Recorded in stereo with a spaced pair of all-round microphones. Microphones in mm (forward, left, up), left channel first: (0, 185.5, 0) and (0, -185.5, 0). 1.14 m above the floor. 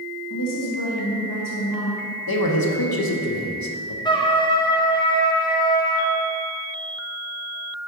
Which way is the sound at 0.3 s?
55° left (ahead or behind).